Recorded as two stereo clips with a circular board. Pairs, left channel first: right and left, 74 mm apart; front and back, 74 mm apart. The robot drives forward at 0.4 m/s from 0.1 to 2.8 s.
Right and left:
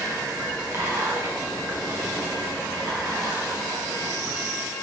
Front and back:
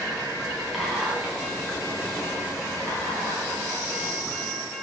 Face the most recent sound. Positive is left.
turn(degrees=145)